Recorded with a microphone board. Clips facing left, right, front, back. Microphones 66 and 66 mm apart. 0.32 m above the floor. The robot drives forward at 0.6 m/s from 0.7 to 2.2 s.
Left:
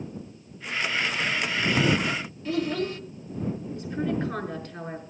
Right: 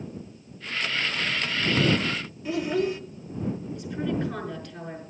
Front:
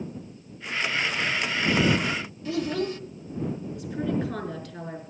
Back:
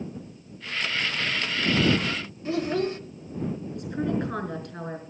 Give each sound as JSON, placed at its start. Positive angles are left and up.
{"t": 2.5, "sound": "a child speaking", "azimuth_deg": -165, "distance_m": 1.0}
{"t": 3.8, "sound": "a woman speaking", "azimuth_deg": 150, "distance_m": 5.0}